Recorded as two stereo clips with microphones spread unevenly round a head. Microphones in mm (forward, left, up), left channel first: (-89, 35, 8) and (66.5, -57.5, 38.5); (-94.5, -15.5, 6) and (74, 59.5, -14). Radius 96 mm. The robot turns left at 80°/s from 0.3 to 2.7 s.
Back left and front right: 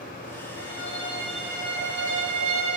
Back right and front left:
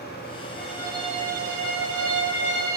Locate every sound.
0.6 s a violin: 120° left, 5.5 m; by 2.8 s 50° right, 5.5 m